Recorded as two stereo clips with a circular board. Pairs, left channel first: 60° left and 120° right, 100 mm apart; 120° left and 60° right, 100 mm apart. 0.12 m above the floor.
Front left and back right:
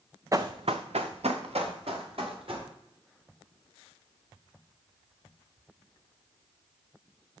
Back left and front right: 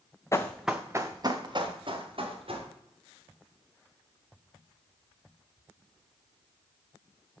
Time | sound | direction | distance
0.3 | running footsteps | straight behind | 0.6 m